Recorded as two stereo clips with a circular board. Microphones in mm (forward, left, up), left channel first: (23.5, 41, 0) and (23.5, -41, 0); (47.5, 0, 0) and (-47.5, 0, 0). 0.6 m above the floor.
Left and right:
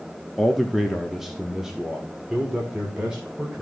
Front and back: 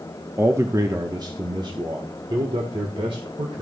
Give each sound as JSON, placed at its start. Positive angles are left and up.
{"t": 0.4, "sound": "a man speaking", "azimuth_deg": 175, "distance_m": 0.9}